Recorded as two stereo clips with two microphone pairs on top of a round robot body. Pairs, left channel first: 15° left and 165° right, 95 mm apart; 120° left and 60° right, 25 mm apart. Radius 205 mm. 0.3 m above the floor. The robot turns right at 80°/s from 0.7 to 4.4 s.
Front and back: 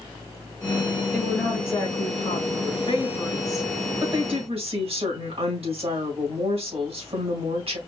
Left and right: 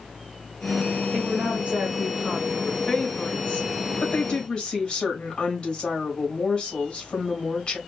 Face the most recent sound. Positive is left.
turn(degrees=175)